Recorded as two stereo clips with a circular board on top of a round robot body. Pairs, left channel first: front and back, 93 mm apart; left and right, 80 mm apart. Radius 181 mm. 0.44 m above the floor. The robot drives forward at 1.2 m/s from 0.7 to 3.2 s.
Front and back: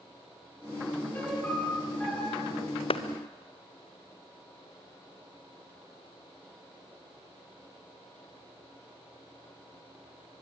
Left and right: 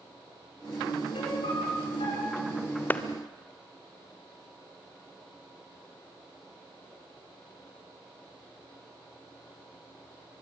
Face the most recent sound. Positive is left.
turn(degrees=25)